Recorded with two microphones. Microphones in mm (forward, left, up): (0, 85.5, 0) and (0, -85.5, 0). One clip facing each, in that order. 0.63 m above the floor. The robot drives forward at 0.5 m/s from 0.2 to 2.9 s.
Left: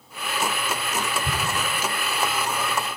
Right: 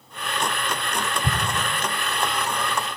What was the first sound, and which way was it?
An explosion, 45° right (ahead or behind).